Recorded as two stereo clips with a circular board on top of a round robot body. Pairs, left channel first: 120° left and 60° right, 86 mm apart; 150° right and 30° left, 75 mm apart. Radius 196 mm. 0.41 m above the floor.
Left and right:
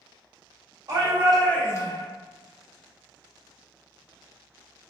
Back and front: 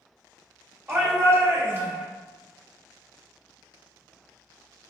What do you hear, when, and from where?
0.9 s a shout: 20° right, 1.0 m; by 2.1 s 95° left, 1.2 m